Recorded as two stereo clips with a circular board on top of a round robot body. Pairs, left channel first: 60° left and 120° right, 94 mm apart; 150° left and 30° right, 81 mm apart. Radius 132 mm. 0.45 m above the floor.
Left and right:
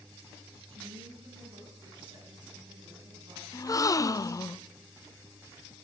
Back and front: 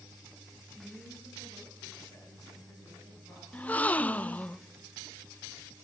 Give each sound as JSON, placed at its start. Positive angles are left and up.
{"t": 0.7, "sound": "a woman speaking", "azimuth_deg": -150, "distance_m": 5.5}
{"t": 3.5, "sound": "a gasp", "azimuth_deg": 90, "distance_m": 0.5}